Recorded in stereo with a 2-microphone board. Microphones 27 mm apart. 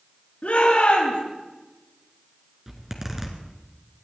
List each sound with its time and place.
0.4 s a shout: 60° left (ahead or behind), 5.5 m
2.7 s a zipper: 15° right (ahead or behind), 2 m